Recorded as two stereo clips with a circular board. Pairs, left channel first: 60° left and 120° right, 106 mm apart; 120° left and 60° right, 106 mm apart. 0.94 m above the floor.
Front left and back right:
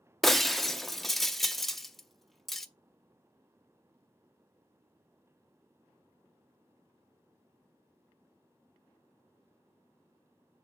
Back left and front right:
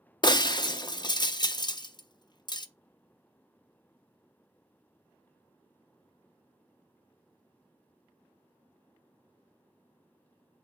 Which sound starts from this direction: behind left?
Breaking glass, at 0.2 s.